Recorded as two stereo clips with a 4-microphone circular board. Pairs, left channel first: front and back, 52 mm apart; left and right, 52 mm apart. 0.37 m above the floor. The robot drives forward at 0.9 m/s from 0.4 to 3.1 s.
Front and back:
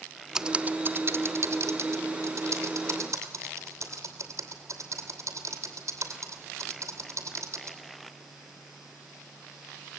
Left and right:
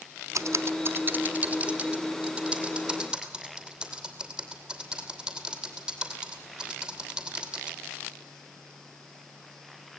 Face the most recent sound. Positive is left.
turn(degrees=-165)